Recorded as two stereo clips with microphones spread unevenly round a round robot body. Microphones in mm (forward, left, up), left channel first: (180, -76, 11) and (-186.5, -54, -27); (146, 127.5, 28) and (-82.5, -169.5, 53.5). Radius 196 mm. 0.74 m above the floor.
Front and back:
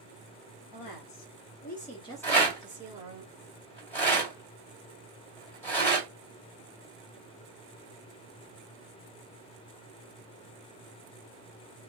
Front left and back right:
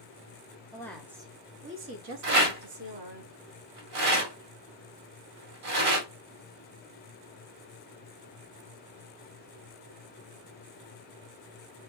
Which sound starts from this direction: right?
A rattle, at 2.2 s.